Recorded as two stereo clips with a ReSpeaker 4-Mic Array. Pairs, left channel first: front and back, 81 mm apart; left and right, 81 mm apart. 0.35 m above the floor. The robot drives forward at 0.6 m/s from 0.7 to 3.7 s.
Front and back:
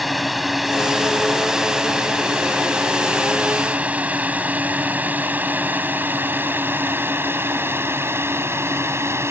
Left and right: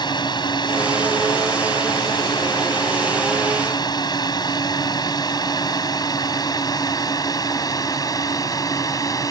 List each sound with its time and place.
0.0 s a drone: 90° left; by 9.3 s 125° left